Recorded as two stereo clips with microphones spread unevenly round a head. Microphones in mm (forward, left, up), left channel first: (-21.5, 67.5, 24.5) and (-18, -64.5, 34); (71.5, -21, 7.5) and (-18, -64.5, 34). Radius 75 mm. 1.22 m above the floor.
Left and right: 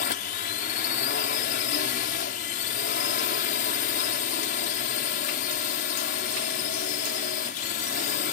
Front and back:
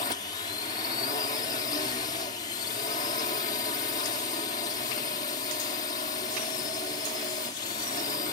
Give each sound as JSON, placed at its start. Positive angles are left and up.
{"t": 0.0, "sound": "a drone", "azimuth_deg": 70}